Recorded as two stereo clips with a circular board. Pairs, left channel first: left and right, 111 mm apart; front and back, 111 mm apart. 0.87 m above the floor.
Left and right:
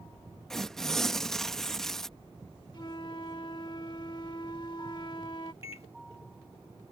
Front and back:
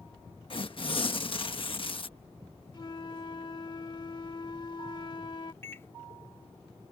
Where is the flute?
45° left.